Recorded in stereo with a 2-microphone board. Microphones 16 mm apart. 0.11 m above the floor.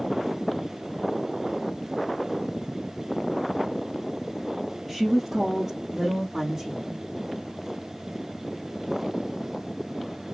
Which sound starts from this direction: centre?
A woman speaking, at 4.9 s.